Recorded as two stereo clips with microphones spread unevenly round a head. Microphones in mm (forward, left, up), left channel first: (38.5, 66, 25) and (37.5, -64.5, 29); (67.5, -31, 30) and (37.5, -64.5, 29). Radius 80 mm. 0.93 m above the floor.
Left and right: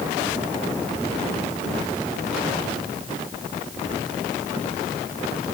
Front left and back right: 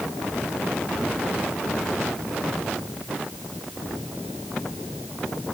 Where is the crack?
I don't hear a crack.